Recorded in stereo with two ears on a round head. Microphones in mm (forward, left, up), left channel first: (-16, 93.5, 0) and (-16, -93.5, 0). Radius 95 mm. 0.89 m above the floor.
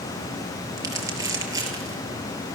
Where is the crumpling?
15° right (ahead or behind), 5.5 m.